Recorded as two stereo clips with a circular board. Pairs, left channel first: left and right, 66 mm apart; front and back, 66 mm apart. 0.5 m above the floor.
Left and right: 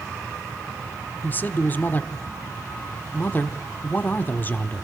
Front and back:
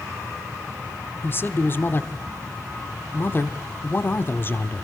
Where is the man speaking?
40° left, 1.1 m.